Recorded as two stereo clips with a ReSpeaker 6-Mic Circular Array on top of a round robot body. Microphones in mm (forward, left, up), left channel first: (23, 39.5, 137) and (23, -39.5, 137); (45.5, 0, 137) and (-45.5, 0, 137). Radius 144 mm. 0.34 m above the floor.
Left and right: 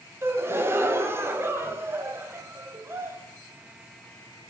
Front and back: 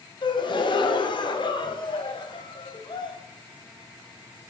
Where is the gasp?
30° right, 0.9 m.